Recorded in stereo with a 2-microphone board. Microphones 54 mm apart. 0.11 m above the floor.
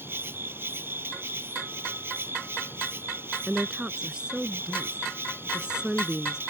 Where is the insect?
45° right (ahead or behind).